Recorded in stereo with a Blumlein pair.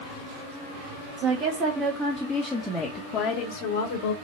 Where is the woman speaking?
35° right, 1.2 m; by 4.1 s 65° left, 1.0 m.